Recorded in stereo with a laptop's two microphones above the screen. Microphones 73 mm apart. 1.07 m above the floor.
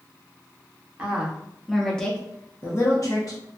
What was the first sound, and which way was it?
A woman speaking, 20° right (ahead or behind).